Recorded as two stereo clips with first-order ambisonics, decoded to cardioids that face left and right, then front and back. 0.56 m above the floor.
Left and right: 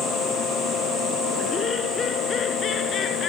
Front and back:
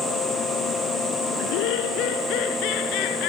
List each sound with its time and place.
1.4 s laughter: 20° left; by 3.3 s 30° left